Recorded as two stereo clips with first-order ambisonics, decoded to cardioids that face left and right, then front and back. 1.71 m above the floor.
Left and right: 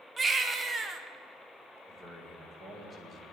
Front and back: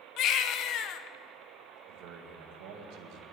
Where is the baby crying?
20° right, 0.8 m.